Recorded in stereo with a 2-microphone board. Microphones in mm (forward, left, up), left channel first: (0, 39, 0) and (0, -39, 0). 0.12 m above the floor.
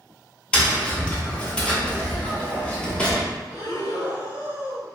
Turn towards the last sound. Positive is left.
turn(degrees=-20)  # may be behind; listen again after turning